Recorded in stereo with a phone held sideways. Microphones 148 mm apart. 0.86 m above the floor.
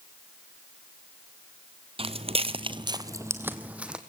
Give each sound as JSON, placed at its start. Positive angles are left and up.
{"t": 2.0, "sound": "footsteps", "side_deg": -40, "distance_m": 1.2}